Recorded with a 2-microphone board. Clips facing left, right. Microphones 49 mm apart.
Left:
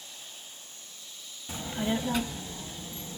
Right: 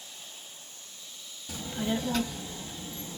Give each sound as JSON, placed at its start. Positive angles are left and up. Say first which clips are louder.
{"t": 1.5, "sound": "a child speaking", "louder": "left 1 dB", "side_deg": 25, "distance_m": 0.6}